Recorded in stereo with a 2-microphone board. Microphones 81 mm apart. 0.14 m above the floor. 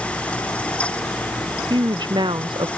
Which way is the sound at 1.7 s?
70° right (ahead or behind).